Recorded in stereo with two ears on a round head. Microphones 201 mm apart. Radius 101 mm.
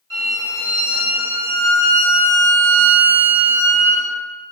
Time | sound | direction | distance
0.1 | a violin | 20° right (ahead or behind) | 1.9 m